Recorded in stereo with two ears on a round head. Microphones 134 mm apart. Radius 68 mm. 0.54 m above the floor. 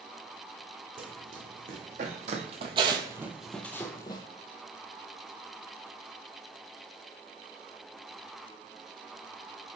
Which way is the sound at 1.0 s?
60° right (ahead or behind).